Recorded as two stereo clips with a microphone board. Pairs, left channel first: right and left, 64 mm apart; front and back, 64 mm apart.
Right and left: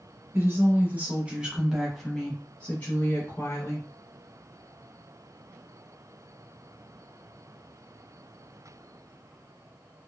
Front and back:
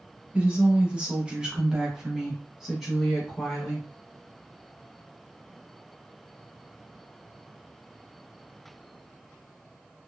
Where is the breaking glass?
No breaking glass in this recording.